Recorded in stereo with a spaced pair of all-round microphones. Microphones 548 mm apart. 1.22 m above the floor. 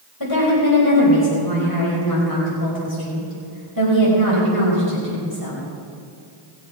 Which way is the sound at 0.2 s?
40° left (ahead or behind).